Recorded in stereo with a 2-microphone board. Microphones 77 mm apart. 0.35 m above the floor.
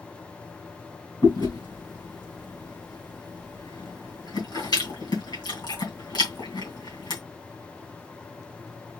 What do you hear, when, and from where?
1.2 s chewing: 65° left (ahead or behind), 3 m